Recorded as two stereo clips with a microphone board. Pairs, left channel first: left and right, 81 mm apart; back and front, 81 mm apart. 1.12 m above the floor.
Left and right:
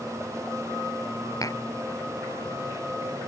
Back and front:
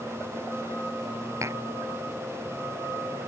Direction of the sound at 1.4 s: 50° left.